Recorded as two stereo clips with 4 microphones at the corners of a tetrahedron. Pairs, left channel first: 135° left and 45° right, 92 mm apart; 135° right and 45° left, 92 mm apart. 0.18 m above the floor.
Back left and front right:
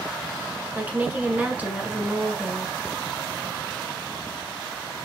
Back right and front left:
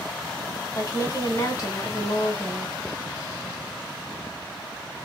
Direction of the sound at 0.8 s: 110° right.